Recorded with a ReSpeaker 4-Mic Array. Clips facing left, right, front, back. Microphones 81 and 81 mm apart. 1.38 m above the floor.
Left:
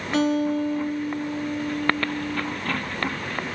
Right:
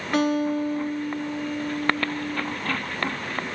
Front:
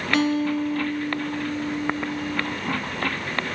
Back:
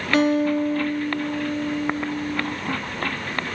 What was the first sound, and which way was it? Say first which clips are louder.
A guitar: left 1 dB, back 3 dB; 130° right.